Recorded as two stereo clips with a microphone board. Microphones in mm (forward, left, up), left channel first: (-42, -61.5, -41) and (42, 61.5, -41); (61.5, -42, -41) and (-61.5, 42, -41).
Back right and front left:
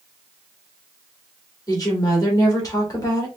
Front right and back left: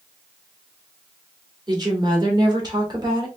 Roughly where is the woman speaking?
Behind.